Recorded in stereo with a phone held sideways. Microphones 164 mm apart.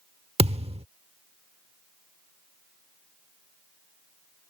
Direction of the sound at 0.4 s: 35° right (ahead or behind).